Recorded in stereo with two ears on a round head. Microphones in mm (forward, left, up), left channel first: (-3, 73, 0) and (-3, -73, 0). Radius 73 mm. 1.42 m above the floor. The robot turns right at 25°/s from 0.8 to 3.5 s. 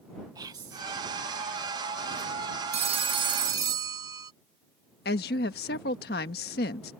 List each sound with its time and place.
0.3 s whispering: 25° right (ahead or behind); by 0.8 s 20° right (ahead or behind)
2.7 s a phone ringing: 40° right (ahead or behind); by 4.3 s 20° right (ahead or behind)
5.0 s a woman speaking: 65° left (ahead or behind)